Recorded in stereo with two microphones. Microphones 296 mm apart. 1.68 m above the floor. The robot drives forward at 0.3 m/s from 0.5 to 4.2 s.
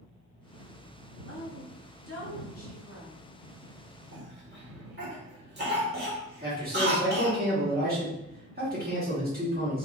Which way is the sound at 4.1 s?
40° right (ahead or behind).